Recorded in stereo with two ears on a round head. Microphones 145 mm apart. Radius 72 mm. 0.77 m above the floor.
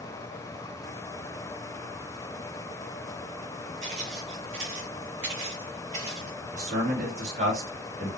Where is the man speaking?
45° right (ahead or behind), 3 m.